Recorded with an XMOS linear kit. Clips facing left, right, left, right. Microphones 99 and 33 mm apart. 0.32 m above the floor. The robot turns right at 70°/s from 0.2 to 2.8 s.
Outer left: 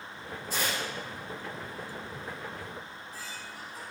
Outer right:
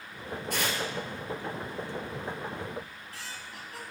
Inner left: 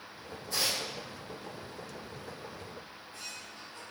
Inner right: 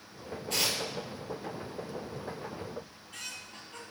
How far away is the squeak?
About 1.7 m.